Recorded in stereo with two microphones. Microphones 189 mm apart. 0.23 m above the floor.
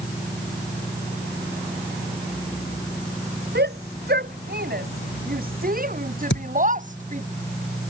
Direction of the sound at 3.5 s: 60° right (ahead or behind).